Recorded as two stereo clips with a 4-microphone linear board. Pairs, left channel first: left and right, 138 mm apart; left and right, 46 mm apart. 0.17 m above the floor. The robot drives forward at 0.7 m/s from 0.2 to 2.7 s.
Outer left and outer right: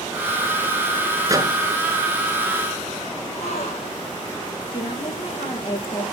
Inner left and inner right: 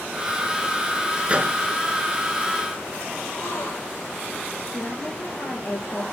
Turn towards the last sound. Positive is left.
turn(degrees=40)  # may be behind; listen again after turning